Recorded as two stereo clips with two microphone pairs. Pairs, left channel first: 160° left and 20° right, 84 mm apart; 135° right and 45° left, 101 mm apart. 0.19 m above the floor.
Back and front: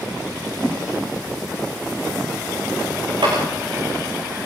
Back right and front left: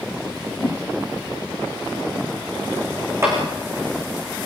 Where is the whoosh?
105° right, 4 m.